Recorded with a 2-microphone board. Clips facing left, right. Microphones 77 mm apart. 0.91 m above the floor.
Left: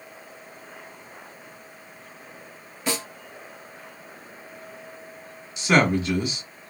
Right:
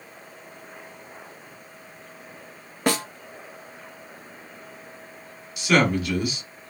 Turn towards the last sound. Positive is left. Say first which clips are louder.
# left 1 dB
turn(degrees=30)  # may be behind; listen again after turning